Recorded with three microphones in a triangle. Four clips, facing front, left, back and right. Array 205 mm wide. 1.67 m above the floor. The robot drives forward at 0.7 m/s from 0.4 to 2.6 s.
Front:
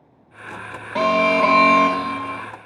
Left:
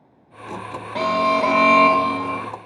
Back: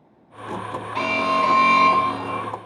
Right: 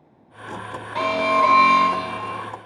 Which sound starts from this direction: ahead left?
An alarm, at 0.9 s.